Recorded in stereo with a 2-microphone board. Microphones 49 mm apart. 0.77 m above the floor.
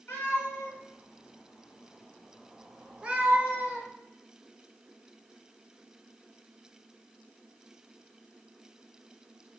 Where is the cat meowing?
60° left (ahead or behind), 1.5 m; by 3.9 s 40° right (ahead or behind), 1.0 m.